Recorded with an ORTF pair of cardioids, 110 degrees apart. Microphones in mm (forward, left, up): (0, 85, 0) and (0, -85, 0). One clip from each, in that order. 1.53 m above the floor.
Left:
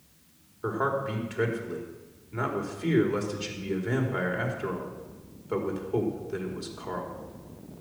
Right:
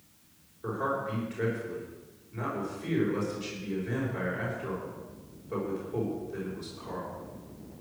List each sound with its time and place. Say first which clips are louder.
0.6 s a man speaking: left 3 dB; 50° left, 4.5 m